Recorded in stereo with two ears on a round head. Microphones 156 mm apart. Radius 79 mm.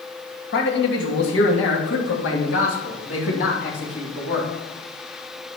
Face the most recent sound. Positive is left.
turn(degrees=75)  # may be behind; listen again after turning